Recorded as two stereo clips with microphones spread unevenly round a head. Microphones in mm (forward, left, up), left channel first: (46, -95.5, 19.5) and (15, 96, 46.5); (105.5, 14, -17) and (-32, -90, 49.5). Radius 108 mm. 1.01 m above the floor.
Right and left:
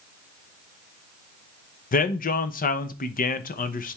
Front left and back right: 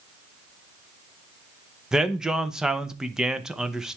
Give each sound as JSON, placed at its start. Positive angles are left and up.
{"t": 1.9, "sound": "a man speaking", "azimuth_deg": -45, "distance_m": 0.8}